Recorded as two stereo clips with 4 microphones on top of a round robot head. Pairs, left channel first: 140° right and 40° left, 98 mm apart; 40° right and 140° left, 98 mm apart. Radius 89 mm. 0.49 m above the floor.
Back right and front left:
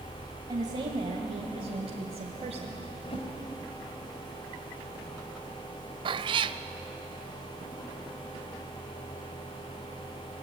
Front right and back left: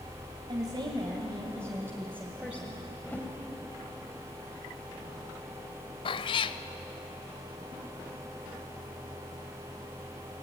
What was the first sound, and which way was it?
A woman speaking, 90° left.